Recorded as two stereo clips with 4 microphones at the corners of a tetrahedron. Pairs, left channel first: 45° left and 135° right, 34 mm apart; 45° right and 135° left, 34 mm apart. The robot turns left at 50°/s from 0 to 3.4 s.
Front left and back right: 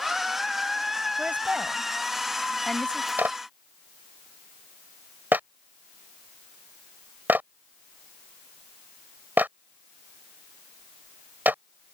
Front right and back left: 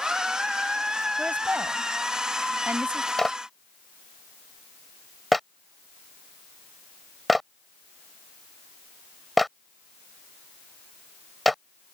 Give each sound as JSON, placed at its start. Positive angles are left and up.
{"t": 1.2, "sound": "a woman speaking", "azimuth_deg": -170}
{"t": 3.2, "sound": "a clap", "azimuth_deg": -125}